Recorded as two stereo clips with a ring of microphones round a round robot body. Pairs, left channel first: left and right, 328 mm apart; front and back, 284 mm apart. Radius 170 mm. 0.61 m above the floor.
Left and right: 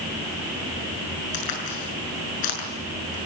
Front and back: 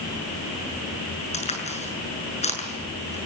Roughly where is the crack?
Ahead left.